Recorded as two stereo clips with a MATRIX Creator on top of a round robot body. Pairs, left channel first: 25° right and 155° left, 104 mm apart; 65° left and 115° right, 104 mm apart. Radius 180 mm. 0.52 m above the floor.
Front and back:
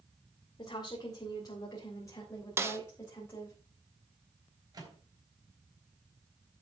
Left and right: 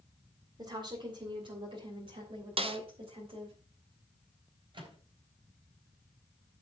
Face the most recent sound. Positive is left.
turn(degrees=-150)